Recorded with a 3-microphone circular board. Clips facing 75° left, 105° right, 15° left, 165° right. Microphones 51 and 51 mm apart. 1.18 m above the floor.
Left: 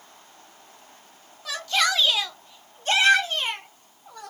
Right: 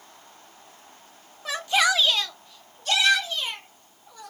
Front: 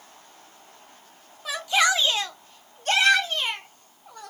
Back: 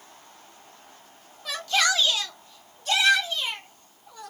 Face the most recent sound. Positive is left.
turn(degrees=55)